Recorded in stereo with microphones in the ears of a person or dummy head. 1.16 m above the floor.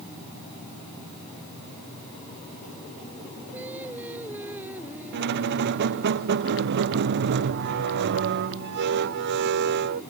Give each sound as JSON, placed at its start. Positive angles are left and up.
{"t": 3.5, "sound": "singing", "side_deg": -10}
{"t": 5.1, "sound": "a squeak", "side_deg": -60}